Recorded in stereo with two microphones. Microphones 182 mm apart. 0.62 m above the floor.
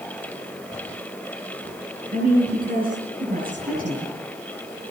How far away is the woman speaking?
About 7 m.